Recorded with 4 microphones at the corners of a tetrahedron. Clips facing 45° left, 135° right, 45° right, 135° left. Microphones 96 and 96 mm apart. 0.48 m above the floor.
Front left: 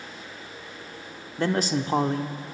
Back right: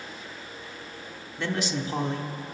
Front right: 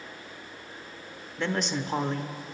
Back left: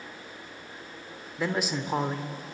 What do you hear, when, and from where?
1.4 s a man speaking: 55° left, 1.1 m